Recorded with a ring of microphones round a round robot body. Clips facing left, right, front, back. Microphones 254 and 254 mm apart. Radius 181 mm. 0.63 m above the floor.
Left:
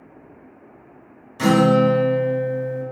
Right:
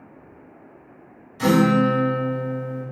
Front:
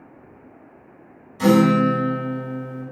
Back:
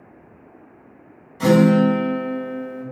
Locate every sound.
1.4 s a guitar: 60° left, 1.5 m